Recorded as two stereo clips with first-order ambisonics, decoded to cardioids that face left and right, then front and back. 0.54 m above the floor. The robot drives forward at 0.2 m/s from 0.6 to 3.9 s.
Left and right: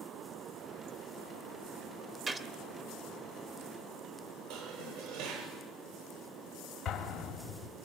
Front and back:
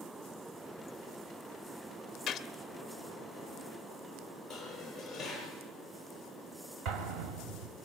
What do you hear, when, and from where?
2.3 s a gunshot: 35° right, 1.4 m
4.5 s dishes clattering: 80° right, 9 m
6.8 s an explosion: 160° left, 2.5 m